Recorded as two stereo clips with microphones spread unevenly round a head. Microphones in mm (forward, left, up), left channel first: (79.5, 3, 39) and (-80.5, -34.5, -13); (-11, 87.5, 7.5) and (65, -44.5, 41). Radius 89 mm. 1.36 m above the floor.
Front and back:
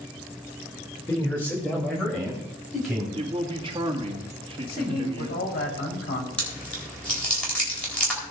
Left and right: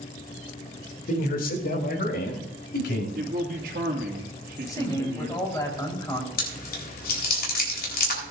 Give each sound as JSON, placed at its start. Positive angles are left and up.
{"t": 1.1, "sound": "a man speaking", "azimuth_deg": 95, "distance_m": 2.5}
{"t": 3.1, "sound": "a man speaking", "azimuth_deg": -105, "distance_m": 2.0}
{"t": 4.7, "sound": "a man speaking", "azimuth_deg": 50, "distance_m": 4.0}
{"t": 6.4, "sound": "chewing", "azimuth_deg": 100, "distance_m": 4.0}